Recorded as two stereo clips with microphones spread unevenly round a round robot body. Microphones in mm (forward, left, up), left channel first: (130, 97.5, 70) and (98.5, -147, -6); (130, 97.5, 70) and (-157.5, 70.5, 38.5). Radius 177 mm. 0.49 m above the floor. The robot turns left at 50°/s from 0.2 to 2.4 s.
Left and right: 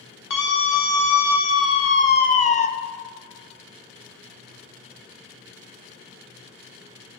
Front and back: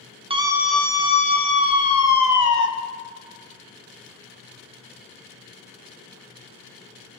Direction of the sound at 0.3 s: 120° left.